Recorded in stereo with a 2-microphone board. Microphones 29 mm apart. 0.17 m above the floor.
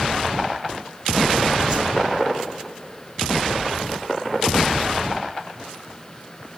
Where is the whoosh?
30° right (ahead or behind), 8 m.